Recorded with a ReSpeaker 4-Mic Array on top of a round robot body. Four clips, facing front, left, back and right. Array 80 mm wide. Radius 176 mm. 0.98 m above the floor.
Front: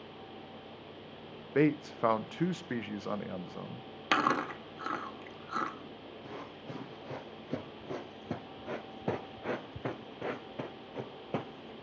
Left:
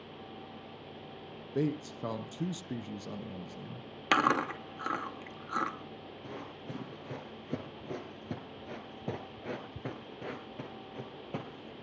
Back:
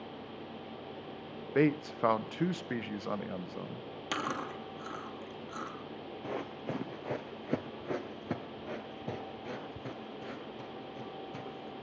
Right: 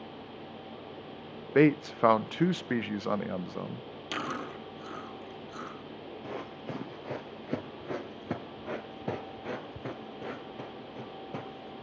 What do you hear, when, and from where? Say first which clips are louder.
1.6 s a man speaking: right 10 dB, even; 90° right, 0.7 m
4.1 s chewing: left 8 dB, front 7 dB; 60° left, 3 m
6.2 s running footsteps: right 5 dB, back 7 dB; 160° right, 1.6 m; by 11.7 s 5° left, 1.8 m